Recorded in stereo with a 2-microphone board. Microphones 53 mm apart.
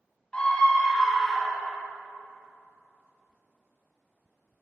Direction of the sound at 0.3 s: 20° left (ahead or behind).